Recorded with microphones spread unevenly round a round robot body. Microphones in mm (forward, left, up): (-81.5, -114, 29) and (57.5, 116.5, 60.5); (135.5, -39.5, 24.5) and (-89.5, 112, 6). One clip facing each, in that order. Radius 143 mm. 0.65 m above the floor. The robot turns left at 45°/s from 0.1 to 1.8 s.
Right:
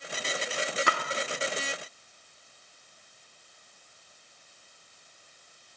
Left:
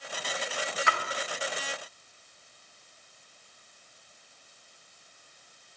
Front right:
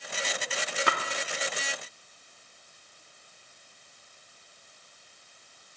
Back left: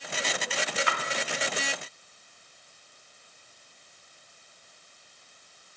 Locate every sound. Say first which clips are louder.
0.9 s a splash: right 2 dB, front right 3 dB; 80° right, 0.7 m; by 1.0 s 85° right, 0.7 m